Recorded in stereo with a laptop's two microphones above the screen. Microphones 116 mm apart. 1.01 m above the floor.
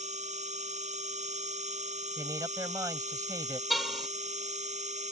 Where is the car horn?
Centre (ahead or behind).